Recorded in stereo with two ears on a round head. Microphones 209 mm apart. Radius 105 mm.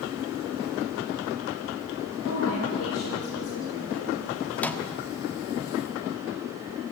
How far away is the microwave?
About 1.2 m.